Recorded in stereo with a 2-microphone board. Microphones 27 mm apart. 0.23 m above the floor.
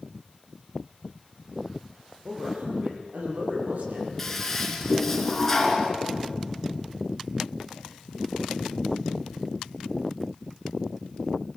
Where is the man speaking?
70° right (ahead or behind), 7 m.